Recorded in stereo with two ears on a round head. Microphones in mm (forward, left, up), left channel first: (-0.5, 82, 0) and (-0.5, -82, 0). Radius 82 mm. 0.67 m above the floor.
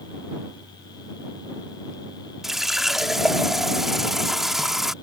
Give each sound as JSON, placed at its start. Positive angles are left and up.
{"t": 2.4, "sound": "a running tap", "side_deg": 0}